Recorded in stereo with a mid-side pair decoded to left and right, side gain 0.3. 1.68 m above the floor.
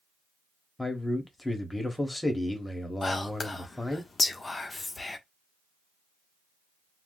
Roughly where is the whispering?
Ahead left.